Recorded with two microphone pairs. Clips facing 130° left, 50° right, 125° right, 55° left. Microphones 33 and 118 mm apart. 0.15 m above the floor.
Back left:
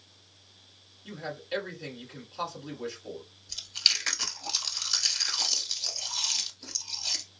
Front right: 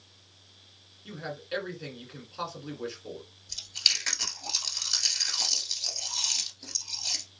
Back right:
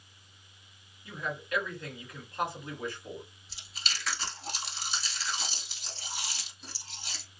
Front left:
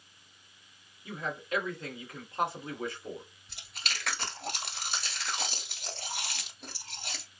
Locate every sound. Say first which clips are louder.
1.1 s a man speaking: back left 1 dB, front left 1 dB; 15° left, 1.5 m
3.5 s chewing: even, front left 2 dB; 45° left, 1.1 m